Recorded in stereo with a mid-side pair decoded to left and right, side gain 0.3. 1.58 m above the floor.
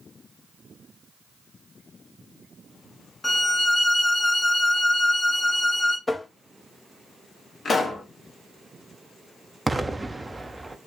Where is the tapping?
30° left, 0.6 m.